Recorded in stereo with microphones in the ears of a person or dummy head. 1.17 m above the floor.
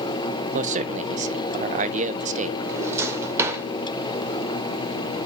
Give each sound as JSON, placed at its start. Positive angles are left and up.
{"t": 0.5, "sound": "a man speaking", "side_deg": -35, "distance_m": 0.7}
{"t": 2.6, "sound": "a drawer", "side_deg": -15, "distance_m": 2.0}